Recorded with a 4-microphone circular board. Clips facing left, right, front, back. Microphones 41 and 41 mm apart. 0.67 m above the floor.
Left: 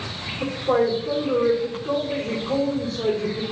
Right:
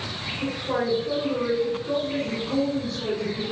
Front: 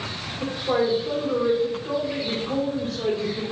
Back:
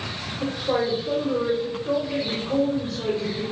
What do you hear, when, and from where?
0.4 s a woman speaking: 50° left, 2 m